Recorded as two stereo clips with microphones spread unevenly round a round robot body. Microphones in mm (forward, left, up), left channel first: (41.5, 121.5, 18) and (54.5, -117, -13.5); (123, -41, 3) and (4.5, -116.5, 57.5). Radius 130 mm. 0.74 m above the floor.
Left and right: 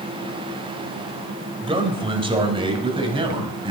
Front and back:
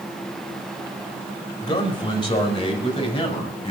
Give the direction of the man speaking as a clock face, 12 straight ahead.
1 o'clock.